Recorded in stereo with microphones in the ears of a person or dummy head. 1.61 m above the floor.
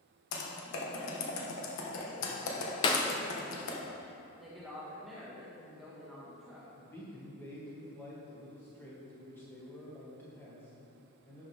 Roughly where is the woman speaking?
Centre.